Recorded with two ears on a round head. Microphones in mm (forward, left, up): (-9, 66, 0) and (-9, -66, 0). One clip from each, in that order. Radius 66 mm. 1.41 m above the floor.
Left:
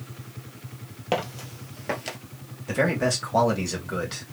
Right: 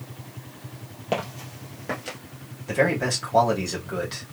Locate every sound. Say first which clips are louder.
1.1 s footsteps: left 1 dB; 20° left (ahead or behind), 1.9 m; by 2.2 s 25° left (ahead or behind), 1.5 m
2.7 s a man speaking: right 1 dB; 10° left (ahead or behind), 2.5 m